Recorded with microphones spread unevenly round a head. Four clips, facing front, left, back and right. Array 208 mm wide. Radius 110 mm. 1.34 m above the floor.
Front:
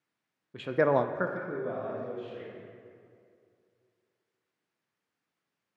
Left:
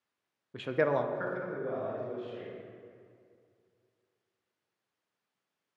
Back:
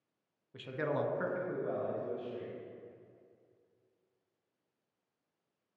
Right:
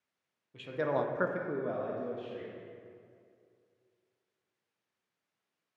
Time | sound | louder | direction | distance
0.5 | a man speaking | left 3 dB, front 10 dB | 50° left | 0.7 m